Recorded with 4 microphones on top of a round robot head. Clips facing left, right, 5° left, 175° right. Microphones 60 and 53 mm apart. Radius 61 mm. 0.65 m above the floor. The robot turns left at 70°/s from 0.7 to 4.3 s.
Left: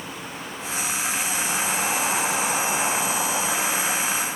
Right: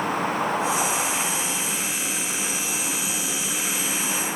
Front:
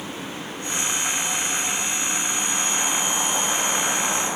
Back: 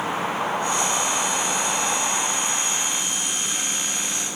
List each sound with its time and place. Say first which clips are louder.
0.0 s a vehicle: right 11 dB, back 8 dB; 130° right; by 4.4 s 10° right